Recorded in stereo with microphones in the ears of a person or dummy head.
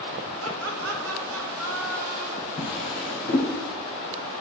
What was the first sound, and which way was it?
Laughter, 90° right.